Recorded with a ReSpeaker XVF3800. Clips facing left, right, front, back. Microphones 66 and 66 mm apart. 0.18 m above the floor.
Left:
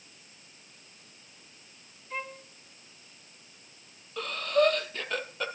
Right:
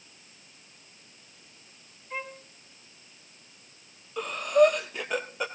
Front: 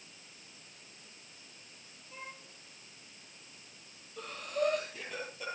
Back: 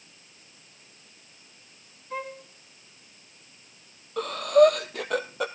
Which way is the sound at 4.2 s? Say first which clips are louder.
Right 5 dB, back 16 dB; 165° right.